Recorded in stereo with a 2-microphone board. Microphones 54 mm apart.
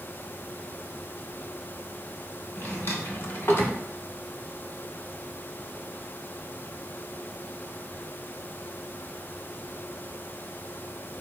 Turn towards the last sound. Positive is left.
turn(degrees=50)  # may be behind; listen again after turning